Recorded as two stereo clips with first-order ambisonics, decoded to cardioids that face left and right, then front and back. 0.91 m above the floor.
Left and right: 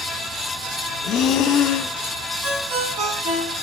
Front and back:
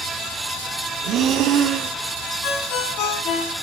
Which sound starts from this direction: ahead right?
A ringtone, at 2.4 s.